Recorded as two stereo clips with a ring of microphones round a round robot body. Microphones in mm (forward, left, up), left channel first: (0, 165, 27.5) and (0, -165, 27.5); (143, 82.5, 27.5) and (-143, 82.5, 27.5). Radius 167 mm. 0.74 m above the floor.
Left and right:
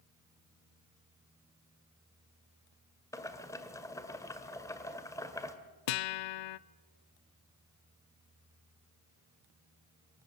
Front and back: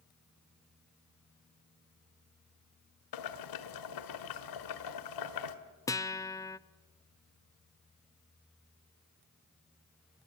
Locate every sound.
3.1 s boiling: 10° left, 1.4 m
5.9 s a guitar: 80° left, 0.6 m